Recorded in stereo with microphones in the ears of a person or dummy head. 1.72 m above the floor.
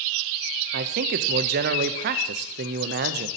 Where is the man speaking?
35° right (ahead or behind), 0.5 m.